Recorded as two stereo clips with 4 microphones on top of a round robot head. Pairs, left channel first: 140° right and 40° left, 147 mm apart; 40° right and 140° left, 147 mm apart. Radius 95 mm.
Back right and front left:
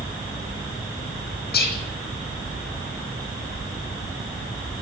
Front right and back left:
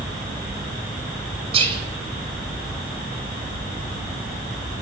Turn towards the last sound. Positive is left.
turn(degrees=-165)